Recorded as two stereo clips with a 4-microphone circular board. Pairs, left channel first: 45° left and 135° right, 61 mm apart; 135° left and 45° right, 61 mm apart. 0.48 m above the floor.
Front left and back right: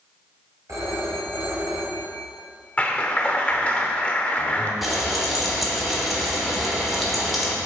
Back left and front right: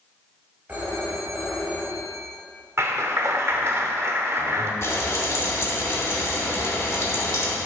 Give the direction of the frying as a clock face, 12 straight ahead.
7 o'clock.